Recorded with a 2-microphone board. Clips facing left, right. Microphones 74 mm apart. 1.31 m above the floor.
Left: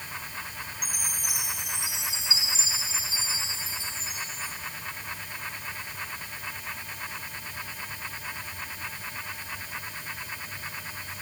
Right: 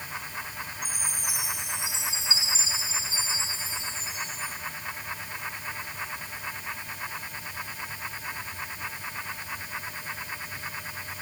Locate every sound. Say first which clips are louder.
0.8 s a chime: right 1 dB; 25° right (ahead or behind), 6.5 m